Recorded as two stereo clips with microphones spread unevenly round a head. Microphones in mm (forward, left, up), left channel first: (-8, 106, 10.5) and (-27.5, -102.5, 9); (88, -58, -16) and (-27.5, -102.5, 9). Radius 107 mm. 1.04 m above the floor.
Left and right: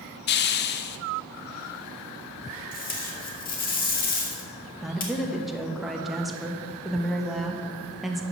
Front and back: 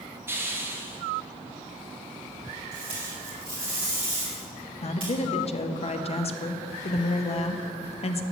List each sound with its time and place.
0.3 s a hiss: 120° left, 0.5 m
2.7 s tape being pulled: 130° left, 1.9 m
4.8 s a woman speaking: 5° right, 1.0 m